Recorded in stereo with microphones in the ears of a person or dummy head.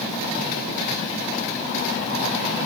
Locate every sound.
Only background noise.